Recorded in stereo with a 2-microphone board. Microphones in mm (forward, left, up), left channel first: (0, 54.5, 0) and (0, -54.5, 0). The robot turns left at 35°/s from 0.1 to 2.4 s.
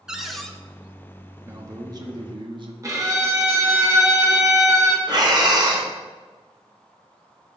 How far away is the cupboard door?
About 0.7 m.